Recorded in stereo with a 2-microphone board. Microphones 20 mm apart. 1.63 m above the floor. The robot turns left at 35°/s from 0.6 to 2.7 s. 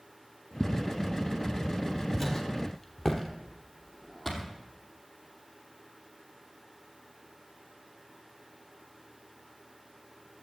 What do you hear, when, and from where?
0.6 s footsteps: 35° left (ahead or behind), 2 m; by 4.5 s 10° right (ahead or behind), 2 m